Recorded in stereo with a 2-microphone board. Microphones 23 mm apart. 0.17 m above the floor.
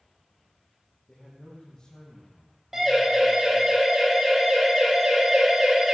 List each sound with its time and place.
1.1 s a man speaking: 50° left (ahead or behind), 5 m
2.7 s a siren: 15° right (ahead or behind), 8 m; by 5.9 s 20° right (ahead or behind), 4.5 m